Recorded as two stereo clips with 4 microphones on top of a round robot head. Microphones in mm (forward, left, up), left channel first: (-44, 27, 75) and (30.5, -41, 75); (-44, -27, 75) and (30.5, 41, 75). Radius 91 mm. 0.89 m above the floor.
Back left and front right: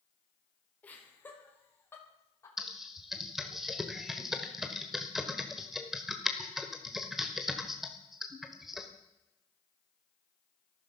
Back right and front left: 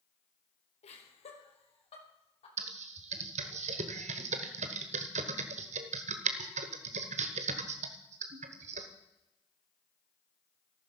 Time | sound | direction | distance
0.8 | laughter | 150° right | 4 m
2.6 | typing on a keyboard | 45° left | 1.2 m